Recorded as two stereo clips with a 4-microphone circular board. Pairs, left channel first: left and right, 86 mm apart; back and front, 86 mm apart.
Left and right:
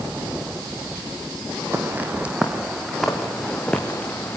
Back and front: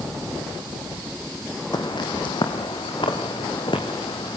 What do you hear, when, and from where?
1.7 s footsteps: 150° right, 3 m; by 4.4 s 160° left, 4.5 m